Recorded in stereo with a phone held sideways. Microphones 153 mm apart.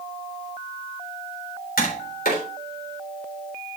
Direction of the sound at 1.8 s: 75° left (ahead or behind).